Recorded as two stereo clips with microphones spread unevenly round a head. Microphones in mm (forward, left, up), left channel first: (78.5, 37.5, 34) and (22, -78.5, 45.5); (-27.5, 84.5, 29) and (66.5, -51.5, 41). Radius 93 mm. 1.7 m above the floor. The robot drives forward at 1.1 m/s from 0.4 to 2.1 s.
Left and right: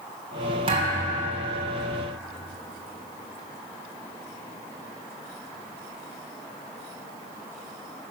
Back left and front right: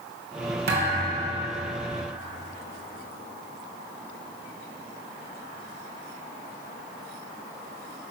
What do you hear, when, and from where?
0.7 s a thud: 80° right, 2.5 m; by 1.4 s 105° right, 2.5 m